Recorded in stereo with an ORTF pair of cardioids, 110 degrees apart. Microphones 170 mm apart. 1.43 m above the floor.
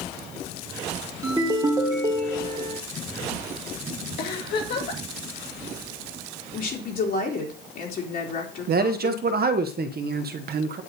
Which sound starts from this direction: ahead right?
A man speaking, at 8.7 s.